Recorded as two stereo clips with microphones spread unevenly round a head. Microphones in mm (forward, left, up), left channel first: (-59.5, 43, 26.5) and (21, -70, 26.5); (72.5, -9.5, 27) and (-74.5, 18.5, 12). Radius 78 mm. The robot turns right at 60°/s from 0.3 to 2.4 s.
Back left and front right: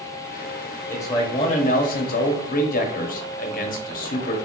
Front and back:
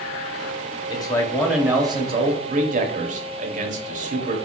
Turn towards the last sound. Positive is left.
turn(degrees=140)